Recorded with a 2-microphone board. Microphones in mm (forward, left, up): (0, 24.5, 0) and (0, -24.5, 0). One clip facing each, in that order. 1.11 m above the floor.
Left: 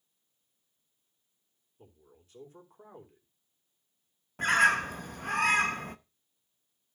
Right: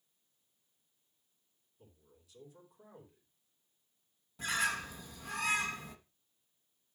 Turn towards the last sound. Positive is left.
turn(degrees=55)  # may be behind; listen again after turning